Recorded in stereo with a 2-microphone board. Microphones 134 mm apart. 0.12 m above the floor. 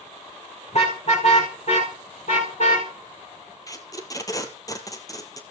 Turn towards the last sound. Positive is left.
turn(degrees=25)  # may be behind; listen again after turning